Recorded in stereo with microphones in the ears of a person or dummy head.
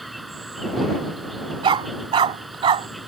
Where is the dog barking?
25° right (ahead or behind).